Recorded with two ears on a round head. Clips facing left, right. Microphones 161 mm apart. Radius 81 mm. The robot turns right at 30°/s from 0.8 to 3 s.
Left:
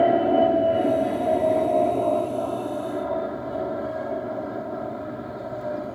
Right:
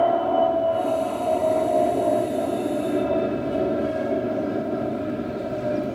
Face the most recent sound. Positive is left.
turn(degrees=-140)